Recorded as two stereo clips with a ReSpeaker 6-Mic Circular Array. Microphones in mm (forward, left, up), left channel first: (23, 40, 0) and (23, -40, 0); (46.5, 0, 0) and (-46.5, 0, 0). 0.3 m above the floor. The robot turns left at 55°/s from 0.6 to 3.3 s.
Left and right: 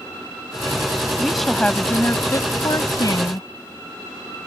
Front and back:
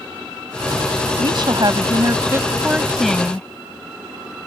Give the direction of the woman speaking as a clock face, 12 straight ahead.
6 o'clock.